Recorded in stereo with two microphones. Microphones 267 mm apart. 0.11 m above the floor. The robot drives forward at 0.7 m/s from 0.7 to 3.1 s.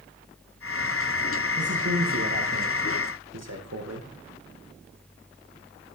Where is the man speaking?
65° right (ahead or behind), 7 m; by 4.1 s 70° right (ahead or behind), 6.5 m.